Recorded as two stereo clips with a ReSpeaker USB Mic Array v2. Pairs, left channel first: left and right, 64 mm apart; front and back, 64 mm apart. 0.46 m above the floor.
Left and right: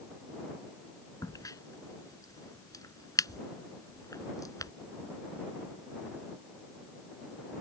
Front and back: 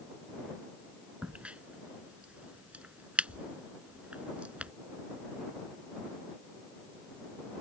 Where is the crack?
110° left.